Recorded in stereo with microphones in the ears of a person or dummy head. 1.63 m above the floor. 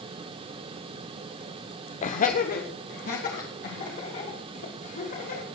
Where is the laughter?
35° left (ahead or behind), 0.7 m; by 5.5 s 45° left (ahead or behind), 4.5 m.